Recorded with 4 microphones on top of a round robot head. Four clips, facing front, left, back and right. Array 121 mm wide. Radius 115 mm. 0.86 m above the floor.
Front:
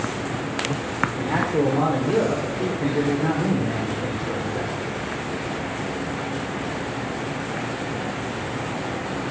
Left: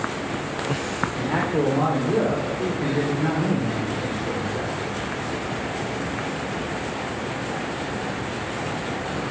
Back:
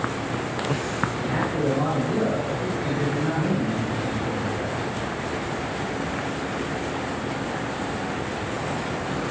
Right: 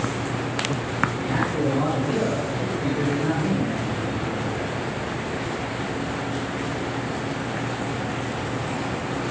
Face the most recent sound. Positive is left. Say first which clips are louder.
# left 1 dB, front 6 dB
turn(degrees=30)